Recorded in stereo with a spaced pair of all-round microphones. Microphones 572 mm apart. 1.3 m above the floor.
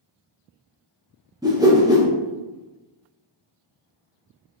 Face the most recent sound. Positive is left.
turn(degrees=-5)  # may be behind; listen again after turning